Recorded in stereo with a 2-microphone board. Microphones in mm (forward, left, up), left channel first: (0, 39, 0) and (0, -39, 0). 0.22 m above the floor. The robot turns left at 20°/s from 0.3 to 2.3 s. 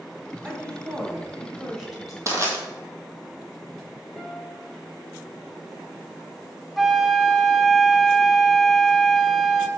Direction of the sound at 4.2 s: Centre (ahead or behind).